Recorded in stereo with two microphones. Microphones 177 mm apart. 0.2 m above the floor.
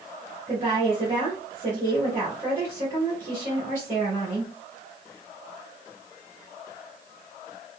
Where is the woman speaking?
40° right (ahead or behind), 2.0 m.